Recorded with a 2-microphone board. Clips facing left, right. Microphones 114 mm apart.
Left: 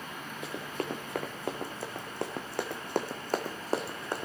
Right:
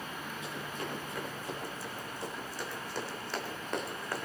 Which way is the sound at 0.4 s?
55° left (ahead or behind).